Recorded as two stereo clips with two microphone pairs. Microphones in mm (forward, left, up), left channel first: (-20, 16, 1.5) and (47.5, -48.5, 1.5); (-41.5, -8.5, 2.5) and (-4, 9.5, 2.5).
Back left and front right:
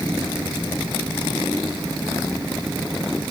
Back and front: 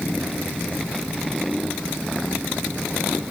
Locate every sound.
Only background noise.